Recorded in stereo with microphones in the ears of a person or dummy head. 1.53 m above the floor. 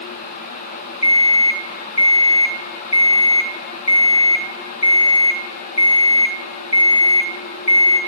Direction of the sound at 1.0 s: 30° left (ahead or behind).